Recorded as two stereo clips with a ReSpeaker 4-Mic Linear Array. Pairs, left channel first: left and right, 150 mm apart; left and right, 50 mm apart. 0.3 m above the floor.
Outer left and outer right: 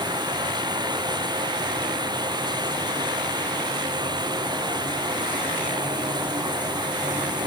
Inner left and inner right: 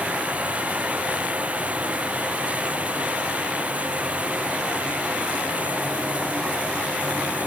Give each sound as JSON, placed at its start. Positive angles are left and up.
{"t": 0.0, "sound": "running water", "side_deg": -30}